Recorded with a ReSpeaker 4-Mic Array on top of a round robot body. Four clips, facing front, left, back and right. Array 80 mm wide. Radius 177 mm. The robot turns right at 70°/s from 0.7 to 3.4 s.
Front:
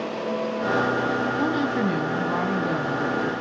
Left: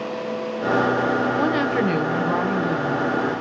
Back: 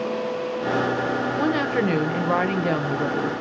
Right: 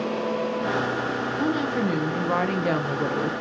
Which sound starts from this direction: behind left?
A woman speaking, at 1.4 s.